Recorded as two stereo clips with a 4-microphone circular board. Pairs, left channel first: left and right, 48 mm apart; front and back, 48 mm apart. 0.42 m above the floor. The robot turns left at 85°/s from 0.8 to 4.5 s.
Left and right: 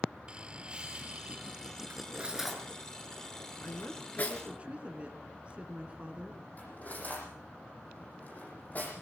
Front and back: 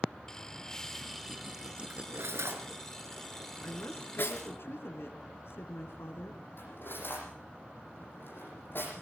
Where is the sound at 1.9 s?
125° right, 4 m; by 4.5 s 15° left, 4 m.